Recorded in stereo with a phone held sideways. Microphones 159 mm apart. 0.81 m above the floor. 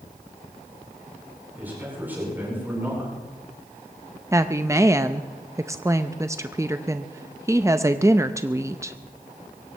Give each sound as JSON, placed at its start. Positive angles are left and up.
{"t": 1.6, "sound": "a man speaking", "side_deg": -10, "distance_m": 9.5}
{"t": 4.3, "sound": "a woman speaking", "side_deg": -20, "distance_m": 0.5}